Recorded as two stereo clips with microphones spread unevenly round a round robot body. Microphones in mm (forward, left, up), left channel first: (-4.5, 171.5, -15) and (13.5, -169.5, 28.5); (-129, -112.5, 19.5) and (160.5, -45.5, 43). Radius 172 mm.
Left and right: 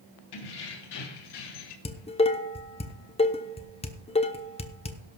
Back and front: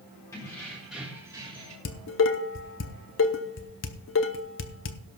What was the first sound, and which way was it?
Keys jangling, 115° left.